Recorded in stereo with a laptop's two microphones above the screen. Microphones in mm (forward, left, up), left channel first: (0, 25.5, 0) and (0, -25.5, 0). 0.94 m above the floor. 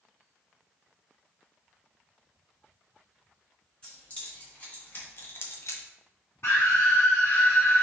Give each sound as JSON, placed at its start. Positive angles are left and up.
{"t": 3.8, "sound": "keys jangling", "side_deg": 20, "distance_m": 1.6}
{"t": 6.4, "sound": "a scream", "side_deg": 50, "distance_m": 1.3}